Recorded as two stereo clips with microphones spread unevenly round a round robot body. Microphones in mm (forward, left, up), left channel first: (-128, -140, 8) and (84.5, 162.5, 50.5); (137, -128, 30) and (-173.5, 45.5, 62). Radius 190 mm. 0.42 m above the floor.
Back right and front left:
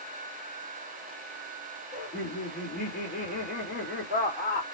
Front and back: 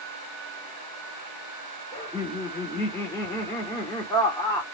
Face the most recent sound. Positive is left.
turn(degrees=-95)